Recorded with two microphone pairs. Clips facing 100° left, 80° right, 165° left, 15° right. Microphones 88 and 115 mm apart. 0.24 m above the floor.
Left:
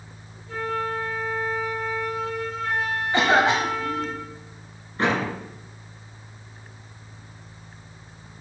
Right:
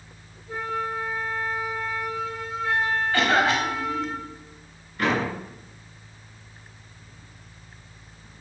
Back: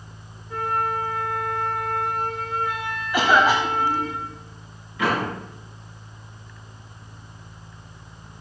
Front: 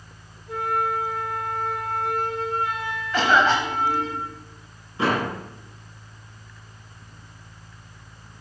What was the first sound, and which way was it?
A flute, 5° right.